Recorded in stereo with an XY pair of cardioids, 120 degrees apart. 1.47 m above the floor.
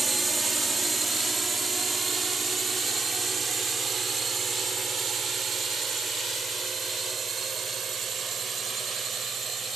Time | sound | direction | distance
0.0 | a drone | 15° right | ?